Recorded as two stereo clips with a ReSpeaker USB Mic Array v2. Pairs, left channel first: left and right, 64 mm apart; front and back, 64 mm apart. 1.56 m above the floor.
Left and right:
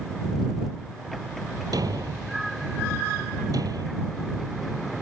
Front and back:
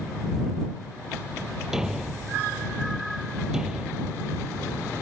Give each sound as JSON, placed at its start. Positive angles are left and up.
{"t": 1.7, "sound": "a thud", "azimuth_deg": -100}